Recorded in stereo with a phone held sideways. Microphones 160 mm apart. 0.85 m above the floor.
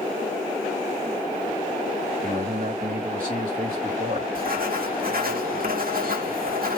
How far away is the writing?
About 1.1 m.